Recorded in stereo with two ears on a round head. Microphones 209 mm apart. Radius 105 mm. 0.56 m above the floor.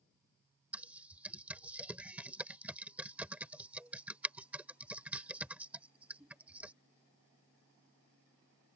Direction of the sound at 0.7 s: 5° right (ahead or behind).